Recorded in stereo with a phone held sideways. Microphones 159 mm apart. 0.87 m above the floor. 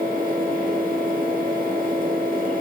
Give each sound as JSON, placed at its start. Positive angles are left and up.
{"t": 0.0, "sound": "a fan", "side_deg": -55, "distance_m": 1.2}